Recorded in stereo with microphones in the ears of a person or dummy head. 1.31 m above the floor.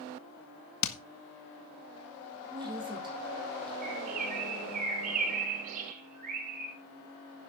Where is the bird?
45° right (ahead or behind), 7 m.